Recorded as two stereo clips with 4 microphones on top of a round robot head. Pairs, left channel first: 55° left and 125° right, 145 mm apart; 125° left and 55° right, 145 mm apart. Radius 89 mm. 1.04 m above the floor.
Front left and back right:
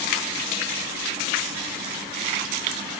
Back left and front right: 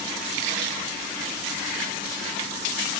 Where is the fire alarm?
No fire alarm in this recording.